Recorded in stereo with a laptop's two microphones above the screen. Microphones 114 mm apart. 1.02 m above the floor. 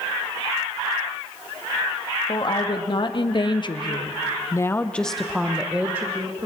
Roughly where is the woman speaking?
Left.